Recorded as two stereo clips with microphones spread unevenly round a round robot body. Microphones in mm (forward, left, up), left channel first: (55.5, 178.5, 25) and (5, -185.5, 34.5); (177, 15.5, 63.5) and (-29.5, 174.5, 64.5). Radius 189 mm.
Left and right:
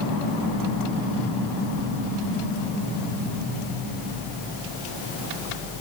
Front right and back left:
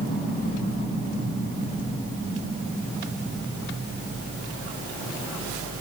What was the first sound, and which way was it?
Only background noise.